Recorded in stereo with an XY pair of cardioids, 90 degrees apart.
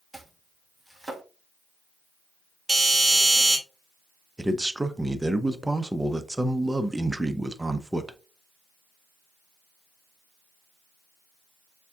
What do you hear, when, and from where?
0.1 s chopping: straight ahead, 1.3 m
2.7 s a doorbell: 25° right, 2 m
4.4 s a man speaking: 15° right, 0.7 m